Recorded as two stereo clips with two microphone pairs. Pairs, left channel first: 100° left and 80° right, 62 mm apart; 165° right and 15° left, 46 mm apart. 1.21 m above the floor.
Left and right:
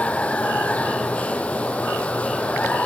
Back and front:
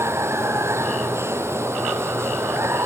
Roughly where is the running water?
Ahead left.